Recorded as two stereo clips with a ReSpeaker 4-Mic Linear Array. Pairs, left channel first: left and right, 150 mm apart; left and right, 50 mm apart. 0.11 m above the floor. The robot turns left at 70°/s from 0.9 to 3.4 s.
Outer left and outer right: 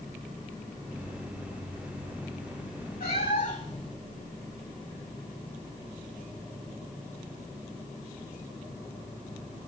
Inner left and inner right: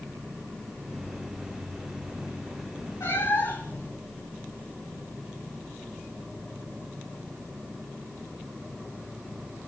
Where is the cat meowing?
75° left (ahead or behind), 4 m; by 3.9 s 45° left (ahead or behind), 4 m.